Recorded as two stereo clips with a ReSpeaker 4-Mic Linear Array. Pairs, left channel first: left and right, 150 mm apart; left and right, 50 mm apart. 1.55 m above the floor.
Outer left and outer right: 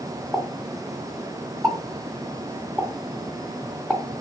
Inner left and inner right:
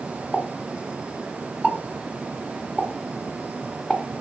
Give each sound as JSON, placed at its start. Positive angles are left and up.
{"t": 0.3, "sound": "a pop", "side_deg": -5, "distance_m": 1.8}